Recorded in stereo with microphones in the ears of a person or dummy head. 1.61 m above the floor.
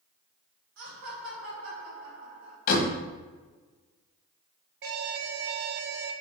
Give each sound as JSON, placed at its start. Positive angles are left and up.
{"t": 0.8, "sound": "laughter", "side_deg": -70, "distance_m": 2.5}
{"t": 2.7, "sound": "a door slam", "side_deg": 50, "distance_m": 1.4}
{"t": 4.8, "sound": "an alarm", "side_deg": -70, "distance_m": 0.8}